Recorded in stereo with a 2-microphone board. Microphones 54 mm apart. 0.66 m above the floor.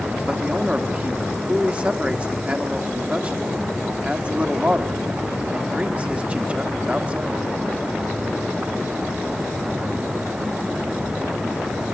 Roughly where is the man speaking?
Right.